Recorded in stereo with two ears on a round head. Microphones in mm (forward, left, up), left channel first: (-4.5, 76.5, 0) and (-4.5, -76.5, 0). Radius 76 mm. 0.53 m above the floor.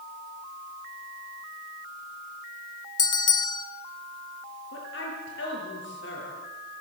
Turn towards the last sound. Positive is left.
turn(degrees=70)  # may be behind; listen again after turning